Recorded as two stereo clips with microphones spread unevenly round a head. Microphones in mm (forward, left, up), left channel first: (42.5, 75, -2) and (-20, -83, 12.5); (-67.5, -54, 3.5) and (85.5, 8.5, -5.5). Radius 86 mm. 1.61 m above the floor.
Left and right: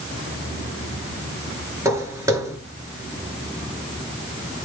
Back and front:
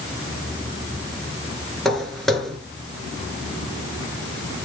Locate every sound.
1.9 s footsteps: 80° right, 1.7 m